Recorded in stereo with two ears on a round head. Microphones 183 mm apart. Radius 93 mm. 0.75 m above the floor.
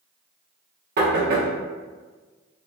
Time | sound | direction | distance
1.0 | knocking | 50° right (ahead or behind) | 1.1 m